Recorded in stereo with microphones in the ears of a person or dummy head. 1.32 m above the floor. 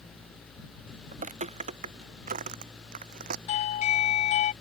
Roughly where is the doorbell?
Left.